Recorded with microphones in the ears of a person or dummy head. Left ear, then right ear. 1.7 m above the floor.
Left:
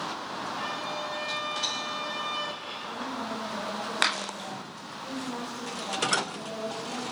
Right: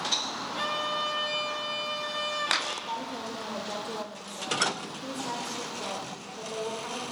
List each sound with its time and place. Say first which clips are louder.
0.6 s a violin: right 6 dB; 45° right (ahead or behind), 1.6 m
2.9 s a woman speaking: even; 50° right (ahead or behind), 1.0 m